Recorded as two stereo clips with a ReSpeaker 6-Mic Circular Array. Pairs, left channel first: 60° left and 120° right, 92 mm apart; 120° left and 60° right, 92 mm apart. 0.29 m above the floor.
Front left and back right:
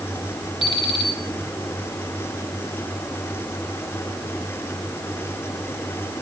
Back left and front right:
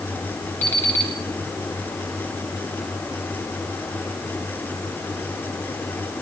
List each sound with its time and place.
0.6 s an alarm clock: 50° left, 3 m